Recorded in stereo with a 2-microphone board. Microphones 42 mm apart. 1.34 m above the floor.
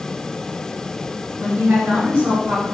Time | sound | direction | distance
1.4 | a woman speaking | 65° right (ahead or behind) | 1.1 m